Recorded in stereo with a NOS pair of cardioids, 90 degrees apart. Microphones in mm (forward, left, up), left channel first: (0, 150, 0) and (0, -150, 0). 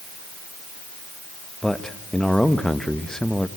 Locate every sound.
1.6 s a man speaking: straight ahead, 1.2 m